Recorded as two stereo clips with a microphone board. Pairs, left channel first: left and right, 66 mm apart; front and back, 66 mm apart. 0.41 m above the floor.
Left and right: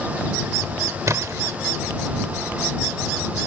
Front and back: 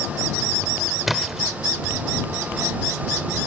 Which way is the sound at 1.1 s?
95° right.